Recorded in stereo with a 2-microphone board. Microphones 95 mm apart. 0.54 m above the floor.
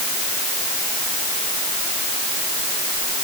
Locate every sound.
Only background noise.